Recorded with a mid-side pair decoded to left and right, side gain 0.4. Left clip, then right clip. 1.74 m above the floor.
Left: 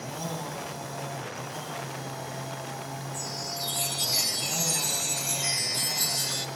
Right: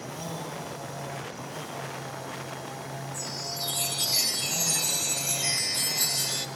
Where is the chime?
Straight ahead, 1.2 m.